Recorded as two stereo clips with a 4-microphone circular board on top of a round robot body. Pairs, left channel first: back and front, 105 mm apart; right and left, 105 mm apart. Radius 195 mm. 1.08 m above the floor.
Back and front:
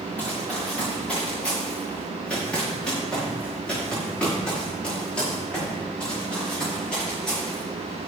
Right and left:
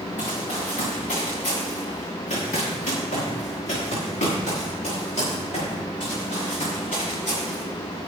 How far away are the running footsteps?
About 4.5 m.